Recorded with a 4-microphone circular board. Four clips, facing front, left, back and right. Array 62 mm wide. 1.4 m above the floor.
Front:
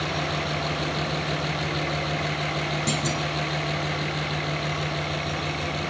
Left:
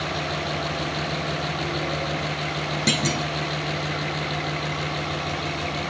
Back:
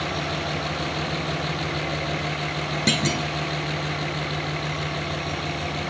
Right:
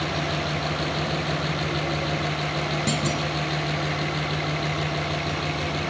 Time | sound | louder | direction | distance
2.9 | a clunk | left 1 dB, back 3 dB | 150° left | 1.7 m